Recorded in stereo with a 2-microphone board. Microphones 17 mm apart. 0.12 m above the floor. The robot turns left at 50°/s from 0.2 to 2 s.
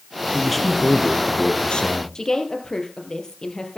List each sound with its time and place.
0.3 s a man speaking: 175° right, 2.5 m; by 2.0 s 105° left, 2.5 m
2.1 s a woman speaking: 40° left (ahead or behind), 3.5 m